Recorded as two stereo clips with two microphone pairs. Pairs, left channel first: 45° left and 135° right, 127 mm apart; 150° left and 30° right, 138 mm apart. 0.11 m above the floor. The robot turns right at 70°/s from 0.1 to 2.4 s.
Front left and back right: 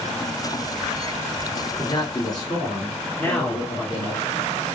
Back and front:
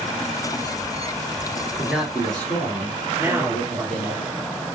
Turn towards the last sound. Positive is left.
turn(degrees=5)